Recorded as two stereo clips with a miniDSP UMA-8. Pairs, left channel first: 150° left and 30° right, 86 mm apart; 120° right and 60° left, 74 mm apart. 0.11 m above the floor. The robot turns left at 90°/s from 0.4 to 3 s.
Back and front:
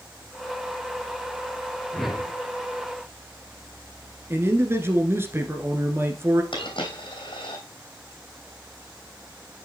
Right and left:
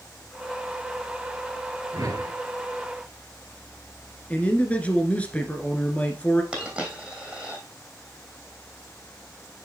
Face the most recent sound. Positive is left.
turn(degrees=135)